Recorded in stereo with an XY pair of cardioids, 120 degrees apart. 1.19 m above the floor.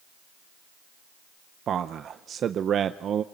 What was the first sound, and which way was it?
A man speaking, 50° right.